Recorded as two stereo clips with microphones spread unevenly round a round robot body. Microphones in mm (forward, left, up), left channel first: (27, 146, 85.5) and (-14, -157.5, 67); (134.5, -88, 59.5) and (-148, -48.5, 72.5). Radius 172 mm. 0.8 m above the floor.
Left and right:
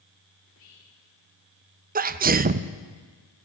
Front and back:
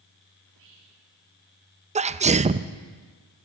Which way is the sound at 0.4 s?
130° left.